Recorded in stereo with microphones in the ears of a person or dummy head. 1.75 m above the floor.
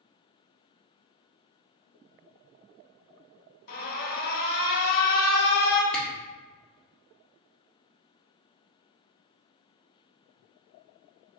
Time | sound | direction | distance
3.7 | an alarm | 50° left (ahead or behind) | 1.0 m
5.9 | a camera shutter | 10° left (ahead or behind) | 1.1 m